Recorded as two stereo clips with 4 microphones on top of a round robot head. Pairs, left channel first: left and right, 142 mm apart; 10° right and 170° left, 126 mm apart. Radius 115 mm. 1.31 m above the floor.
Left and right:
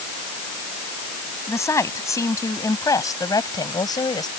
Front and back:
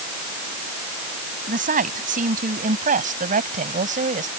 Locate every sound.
1.5 s a woman speaking: 160° left; by 4.3 s 150° left